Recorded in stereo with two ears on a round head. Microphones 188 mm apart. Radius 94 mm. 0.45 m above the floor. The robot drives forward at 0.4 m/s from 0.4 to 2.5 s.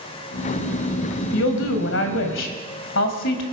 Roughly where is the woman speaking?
Left.